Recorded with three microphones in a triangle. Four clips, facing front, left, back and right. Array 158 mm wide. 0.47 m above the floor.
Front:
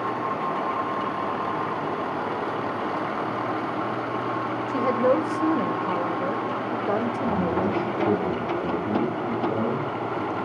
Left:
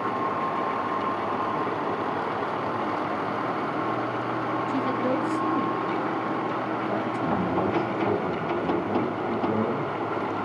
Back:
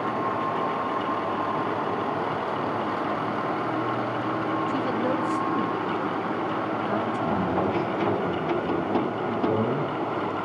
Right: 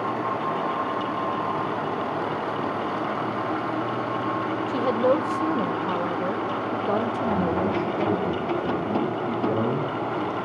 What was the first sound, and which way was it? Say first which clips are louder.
A woman speaking: right 6 dB, front 4 dB; 50° right.